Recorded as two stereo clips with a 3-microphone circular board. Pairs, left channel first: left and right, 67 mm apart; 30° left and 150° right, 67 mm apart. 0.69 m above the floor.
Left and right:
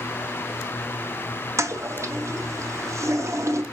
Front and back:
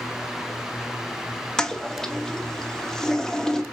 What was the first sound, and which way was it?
A toilet flushing, 55° right.